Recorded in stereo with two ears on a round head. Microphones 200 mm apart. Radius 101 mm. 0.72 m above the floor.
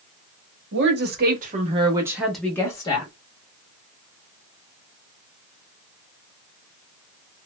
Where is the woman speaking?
55° right (ahead or behind), 1.1 m; by 3.1 s 25° left (ahead or behind), 1.1 m.